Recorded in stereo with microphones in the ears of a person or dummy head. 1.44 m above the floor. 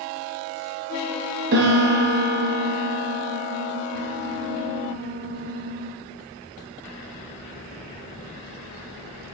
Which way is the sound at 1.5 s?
55° right (ahead or behind).